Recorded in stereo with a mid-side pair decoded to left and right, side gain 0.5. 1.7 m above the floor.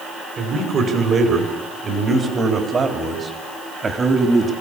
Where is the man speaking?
45° right, 5.5 m; by 4.5 s 25° right, 3.5 m.